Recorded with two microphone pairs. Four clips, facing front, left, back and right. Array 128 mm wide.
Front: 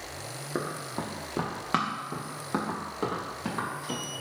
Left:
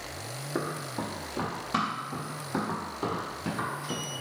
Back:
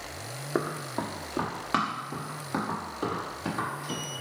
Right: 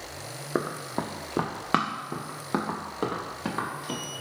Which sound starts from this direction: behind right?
Running footsteps, at 0.6 s.